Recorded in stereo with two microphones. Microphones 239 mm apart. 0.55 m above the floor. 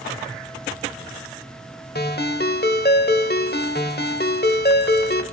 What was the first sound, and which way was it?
A ringtone, 45° left (ahead or behind).